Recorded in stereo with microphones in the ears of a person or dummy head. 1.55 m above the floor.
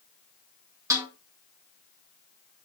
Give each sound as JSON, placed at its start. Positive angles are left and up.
{"t": 0.9, "sound": "a snare drum", "side_deg": -15, "distance_m": 2.5}